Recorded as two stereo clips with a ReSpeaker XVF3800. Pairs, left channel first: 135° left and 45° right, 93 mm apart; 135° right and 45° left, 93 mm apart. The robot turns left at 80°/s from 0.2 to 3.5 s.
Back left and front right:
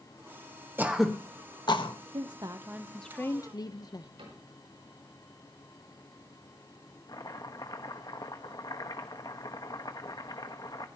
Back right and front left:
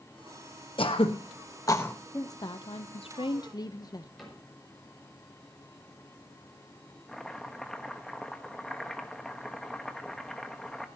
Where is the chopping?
140° left, 1.2 m.